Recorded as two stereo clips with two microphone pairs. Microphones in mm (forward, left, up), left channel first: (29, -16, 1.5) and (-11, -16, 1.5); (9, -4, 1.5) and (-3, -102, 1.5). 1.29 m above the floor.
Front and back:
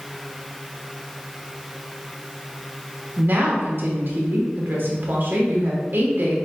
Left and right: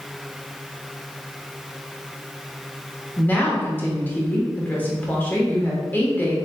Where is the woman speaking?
155° left, 1.1 m.